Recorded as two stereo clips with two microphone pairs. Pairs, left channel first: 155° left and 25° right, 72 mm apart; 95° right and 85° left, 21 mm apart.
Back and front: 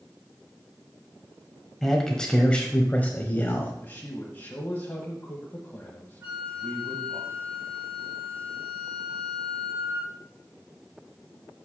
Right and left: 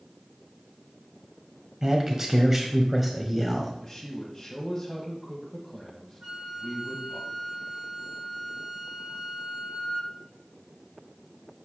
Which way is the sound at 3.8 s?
170° right.